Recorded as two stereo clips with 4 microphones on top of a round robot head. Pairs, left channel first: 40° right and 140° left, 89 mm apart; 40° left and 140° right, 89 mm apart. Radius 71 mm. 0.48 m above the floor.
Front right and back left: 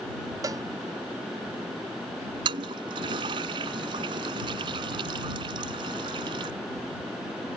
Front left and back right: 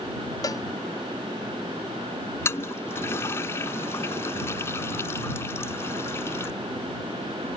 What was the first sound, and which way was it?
A cowbell, 90° left.